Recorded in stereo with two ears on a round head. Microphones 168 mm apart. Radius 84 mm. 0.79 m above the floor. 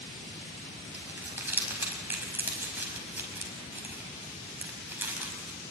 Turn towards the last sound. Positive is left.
turn(degrees=-10)  # may be behind; listen again after turning